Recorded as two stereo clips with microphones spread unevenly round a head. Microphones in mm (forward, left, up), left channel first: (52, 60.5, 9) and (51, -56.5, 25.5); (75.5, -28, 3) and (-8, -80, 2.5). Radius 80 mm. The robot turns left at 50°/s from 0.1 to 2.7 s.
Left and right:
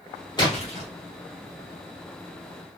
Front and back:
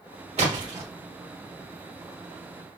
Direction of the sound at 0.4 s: 155° left.